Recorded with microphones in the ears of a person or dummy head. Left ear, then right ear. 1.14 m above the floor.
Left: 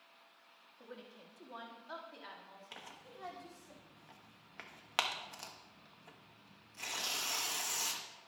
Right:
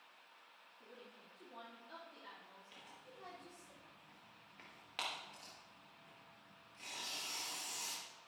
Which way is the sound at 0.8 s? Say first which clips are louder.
Left 6 dB; 60° left (ahead or behind).